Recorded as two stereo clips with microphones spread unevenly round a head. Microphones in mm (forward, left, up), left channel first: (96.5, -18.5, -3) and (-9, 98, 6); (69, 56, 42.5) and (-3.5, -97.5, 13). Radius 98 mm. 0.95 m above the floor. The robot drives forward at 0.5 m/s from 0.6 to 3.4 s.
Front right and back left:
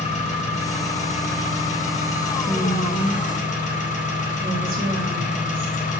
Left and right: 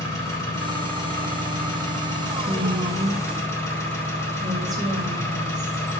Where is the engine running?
5° right, 4.5 m; by 6.0 s 10° right, 3 m.